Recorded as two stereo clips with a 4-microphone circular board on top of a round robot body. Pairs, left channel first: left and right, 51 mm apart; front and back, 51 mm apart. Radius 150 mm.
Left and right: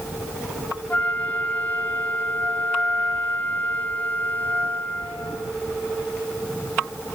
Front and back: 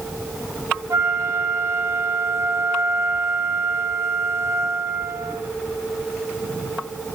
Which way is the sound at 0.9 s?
150° left.